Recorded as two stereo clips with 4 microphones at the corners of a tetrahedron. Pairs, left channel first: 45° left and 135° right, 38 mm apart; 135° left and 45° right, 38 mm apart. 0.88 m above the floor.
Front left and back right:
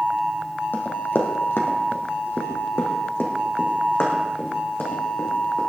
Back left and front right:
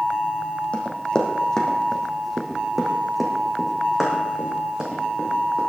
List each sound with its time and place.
0.7 s running footsteps: 75° left, 2.5 m; by 5.6 s 20° left, 5 m